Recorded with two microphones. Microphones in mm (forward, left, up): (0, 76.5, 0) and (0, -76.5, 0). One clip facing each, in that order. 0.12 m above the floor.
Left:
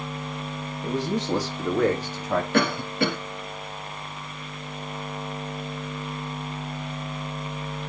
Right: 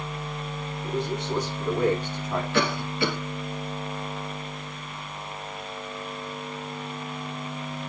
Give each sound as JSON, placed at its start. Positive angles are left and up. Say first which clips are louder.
{"t": 0.8, "sound": "a man speaking", "louder": "left 3 dB", "side_deg": 75, "distance_m": 4.0}
{"t": 2.5, "sound": "a cough", "louder": "left 1 dB", "side_deg": 50, "distance_m": 2.5}